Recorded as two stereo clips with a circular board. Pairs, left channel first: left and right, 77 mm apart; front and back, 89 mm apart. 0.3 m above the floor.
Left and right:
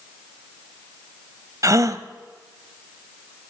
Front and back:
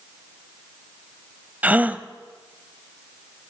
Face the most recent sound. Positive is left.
turn(degrees=-110)